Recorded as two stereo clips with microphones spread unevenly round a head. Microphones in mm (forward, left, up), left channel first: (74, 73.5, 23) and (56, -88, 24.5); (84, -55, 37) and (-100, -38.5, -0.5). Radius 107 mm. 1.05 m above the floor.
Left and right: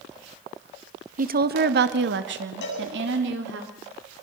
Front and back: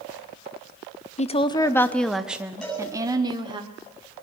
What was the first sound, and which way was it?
A woman speaking, 60° right.